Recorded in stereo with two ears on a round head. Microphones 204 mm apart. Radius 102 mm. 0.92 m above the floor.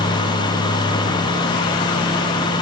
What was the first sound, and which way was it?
Only background noise.